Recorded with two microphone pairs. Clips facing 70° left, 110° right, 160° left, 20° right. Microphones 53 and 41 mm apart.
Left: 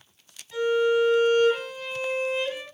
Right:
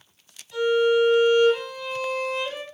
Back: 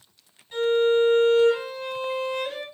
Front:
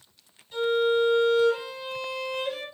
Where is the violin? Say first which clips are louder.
Right 2 dB, back 3 dB; 130° left, 2.5 m.